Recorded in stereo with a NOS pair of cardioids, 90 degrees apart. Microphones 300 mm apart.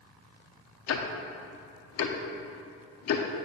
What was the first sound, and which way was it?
Ticking, 55° left.